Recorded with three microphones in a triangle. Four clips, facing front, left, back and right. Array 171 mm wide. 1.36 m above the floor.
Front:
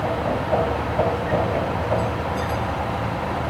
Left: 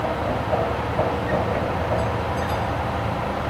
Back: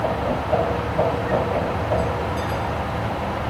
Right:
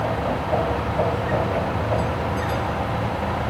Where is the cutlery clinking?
I don't hear cutlery clinking.